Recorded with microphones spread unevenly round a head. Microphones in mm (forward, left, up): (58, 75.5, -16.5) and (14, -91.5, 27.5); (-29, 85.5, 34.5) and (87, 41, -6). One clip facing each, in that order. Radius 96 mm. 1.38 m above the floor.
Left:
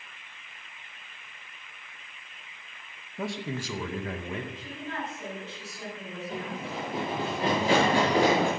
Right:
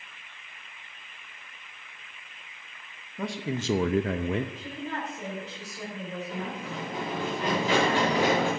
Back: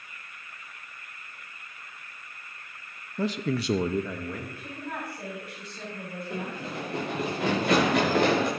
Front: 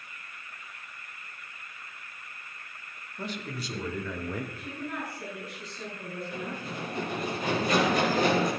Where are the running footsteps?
155° left, 6 m; by 8.5 s 135° left, 6 m.